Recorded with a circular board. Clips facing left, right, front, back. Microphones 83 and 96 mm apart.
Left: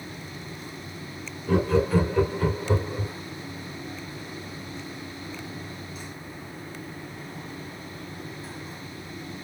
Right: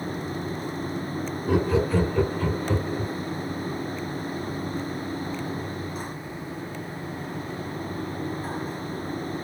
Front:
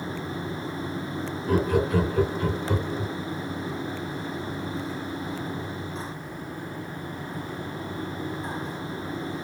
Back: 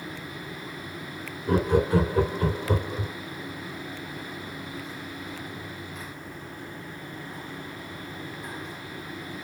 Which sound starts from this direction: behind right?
Laughter, at 1.5 s.